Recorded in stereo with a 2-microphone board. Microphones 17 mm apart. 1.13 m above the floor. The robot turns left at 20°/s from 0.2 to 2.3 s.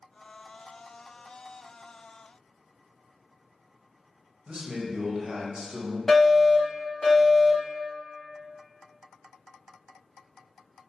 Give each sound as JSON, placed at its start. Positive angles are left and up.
{"t": 4.5, "sound": "a man speaking", "side_deg": -60, "distance_m": 0.8}
{"t": 6.1, "sound": "a fire alarm", "side_deg": 20, "distance_m": 1.4}